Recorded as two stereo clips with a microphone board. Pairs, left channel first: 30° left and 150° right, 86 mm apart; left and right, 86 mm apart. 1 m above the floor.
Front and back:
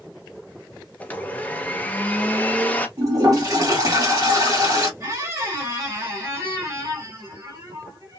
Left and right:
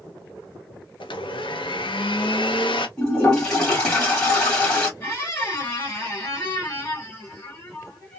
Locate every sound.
1.0 s a blender: 100° left, 0.6 m
3.0 s a toilet flushing: 170° left, 1.5 m
5.0 s a squeak: 155° left, 1.5 m